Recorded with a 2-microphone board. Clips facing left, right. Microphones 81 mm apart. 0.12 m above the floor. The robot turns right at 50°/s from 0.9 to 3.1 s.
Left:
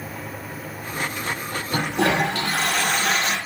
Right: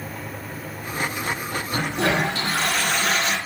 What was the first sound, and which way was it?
A toilet flushing, 70° left.